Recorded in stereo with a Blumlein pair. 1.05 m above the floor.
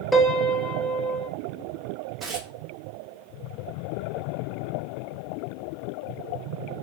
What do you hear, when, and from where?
0.1 s a piano: 5° left, 0.8 m
2.2 s tearing paper: 20° right, 1.4 m